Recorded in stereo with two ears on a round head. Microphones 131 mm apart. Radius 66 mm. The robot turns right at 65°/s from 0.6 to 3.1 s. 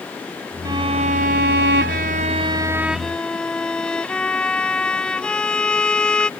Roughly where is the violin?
Behind right.